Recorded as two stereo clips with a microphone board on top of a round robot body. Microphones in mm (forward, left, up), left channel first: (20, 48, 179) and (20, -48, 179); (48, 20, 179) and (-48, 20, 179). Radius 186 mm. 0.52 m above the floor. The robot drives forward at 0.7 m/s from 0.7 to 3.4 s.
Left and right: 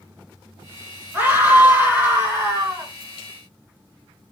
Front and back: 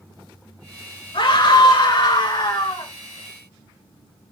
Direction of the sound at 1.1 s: 20° right.